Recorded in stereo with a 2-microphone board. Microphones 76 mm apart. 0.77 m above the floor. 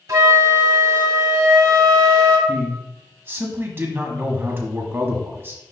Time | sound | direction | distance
0.1 | a flute | 50° right (ahead or behind) | 1.7 m
2.5 | a man speaking | 30° right (ahead or behind) | 1.3 m